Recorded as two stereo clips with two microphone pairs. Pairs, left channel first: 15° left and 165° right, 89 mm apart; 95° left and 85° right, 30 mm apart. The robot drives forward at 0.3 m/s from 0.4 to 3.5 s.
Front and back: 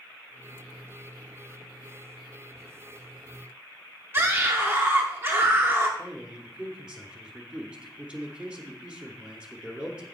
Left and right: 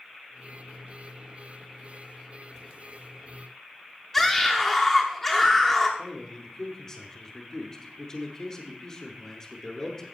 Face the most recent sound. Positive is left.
turn(degrees=135)